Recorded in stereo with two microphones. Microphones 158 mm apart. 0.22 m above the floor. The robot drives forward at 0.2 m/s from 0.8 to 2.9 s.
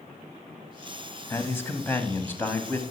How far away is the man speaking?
About 1.0 m.